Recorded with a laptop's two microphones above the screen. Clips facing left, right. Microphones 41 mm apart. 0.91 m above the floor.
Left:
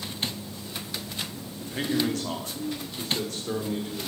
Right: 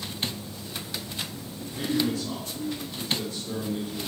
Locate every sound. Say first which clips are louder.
1.7 s a man speaking: even; 55° left (ahead or behind), 2 m; by 4.1 s 65° left (ahead or behind), 4 m